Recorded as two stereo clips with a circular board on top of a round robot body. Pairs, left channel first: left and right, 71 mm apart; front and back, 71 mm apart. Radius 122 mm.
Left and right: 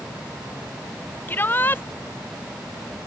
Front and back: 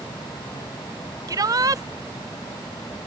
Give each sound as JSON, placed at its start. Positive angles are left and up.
{"t": 1.3, "sound": "a shout", "azimuth_deg": 150}